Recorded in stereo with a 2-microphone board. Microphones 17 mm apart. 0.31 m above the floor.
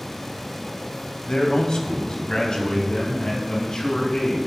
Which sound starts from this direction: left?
A man speaking, at 1.3 s.